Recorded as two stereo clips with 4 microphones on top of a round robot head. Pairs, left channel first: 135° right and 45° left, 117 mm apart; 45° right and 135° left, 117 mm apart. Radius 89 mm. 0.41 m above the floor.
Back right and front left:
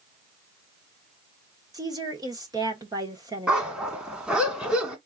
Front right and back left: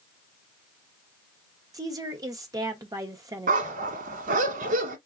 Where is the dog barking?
130° left, 1.1 m.